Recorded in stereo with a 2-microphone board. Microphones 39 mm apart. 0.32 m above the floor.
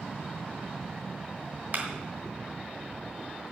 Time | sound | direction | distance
1.7 | a clap | 50° right (ahead or behind) | 3 m